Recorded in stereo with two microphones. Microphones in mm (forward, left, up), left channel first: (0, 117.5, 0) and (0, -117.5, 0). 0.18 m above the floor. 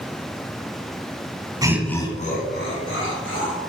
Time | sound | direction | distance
1.6 | laughter | 15° right (ahead or behind) | 1.1 m